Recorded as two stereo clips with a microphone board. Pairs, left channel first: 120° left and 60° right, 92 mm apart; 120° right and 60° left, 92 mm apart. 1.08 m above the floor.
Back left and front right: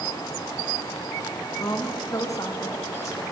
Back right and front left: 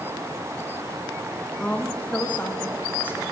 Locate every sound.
1.6 s a woman speaking: 165° left, 1.3 m; by 3.2 s 175° left, 2.5 m